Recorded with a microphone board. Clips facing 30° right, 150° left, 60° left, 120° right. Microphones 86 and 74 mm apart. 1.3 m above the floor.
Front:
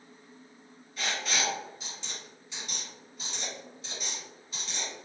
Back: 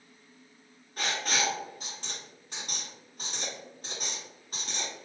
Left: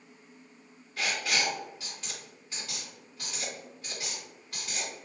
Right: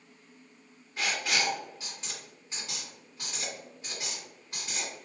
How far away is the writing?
About 2.0 m.